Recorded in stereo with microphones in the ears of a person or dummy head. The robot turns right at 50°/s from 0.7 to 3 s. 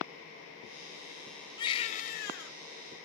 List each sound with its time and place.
1.6 s a baby crying: 25° left, 3.5 m; by 2.5 s 70° left, 3.5 m